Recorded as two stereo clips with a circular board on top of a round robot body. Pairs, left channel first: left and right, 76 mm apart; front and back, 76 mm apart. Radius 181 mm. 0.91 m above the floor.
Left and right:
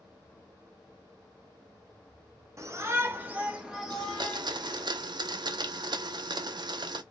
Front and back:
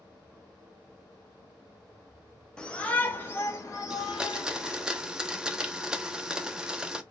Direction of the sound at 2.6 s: 75° right.